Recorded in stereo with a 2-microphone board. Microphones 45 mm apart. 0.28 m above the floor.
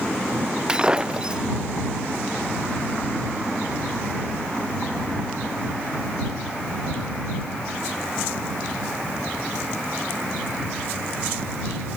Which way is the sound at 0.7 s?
15° right (ahead or behind).